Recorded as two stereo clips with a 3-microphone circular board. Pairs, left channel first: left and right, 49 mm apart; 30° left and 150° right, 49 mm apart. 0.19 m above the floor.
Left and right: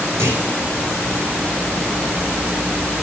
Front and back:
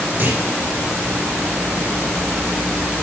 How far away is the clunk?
About 4 m.